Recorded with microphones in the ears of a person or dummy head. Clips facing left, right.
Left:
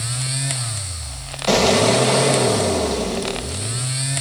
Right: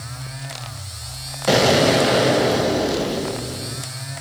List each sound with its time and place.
1.5 s an explosion: 10° right (ahead or behind), 1.1 m